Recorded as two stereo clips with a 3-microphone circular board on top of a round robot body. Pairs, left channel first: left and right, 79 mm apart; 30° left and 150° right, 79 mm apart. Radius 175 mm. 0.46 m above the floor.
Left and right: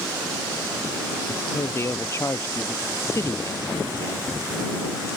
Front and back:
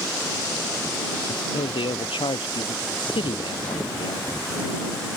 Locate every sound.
1.3 s a man speaking: 30° left; by 4.4 s 40° left